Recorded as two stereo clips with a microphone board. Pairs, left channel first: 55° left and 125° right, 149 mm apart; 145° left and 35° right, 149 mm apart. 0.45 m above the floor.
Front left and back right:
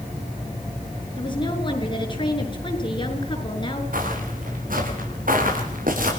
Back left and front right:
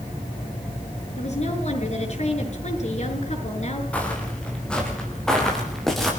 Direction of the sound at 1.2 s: 110° left.